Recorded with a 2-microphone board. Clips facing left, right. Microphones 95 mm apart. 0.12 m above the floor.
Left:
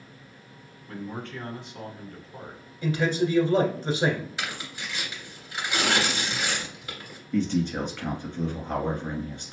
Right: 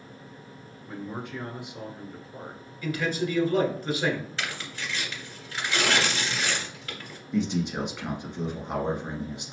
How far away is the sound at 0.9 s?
About 1.2 m.